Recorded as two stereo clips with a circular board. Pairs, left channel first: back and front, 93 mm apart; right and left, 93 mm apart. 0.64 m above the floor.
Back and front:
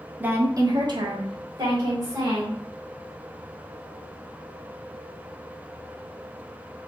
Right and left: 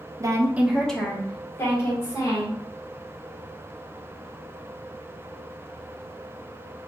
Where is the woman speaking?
65° left, 0.7 m; by 2.6 s 40° right, 2 m.